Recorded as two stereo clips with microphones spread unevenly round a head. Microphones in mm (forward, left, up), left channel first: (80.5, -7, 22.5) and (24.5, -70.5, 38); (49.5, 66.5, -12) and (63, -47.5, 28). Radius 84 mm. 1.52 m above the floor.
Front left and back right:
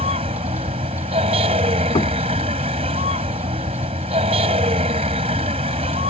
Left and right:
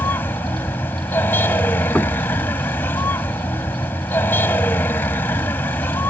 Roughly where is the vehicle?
Behind.